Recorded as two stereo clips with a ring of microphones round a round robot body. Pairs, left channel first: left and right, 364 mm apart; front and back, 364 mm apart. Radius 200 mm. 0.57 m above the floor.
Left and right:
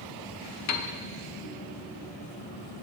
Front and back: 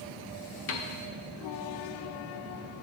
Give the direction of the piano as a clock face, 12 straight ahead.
10 o'clock.